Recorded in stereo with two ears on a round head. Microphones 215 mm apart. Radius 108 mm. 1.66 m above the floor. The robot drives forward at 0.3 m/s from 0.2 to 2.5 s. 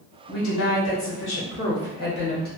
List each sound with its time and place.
0.3 s a woman speaking: 70° left (ahead or behind), 1.1 m; by 2.5 s 45° left (ahead or behind), 1.4 m